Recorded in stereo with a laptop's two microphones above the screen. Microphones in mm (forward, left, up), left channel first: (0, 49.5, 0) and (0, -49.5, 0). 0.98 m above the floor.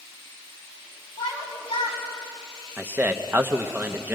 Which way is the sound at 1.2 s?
55° left (ahead or behind).